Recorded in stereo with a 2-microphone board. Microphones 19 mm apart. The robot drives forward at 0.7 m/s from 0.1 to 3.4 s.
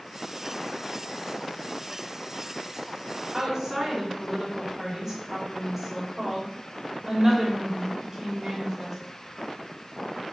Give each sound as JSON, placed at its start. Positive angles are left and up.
{"t": 3.3, "sound": "a woman speaking", "side_deg": -30, "distance_m": 3.5}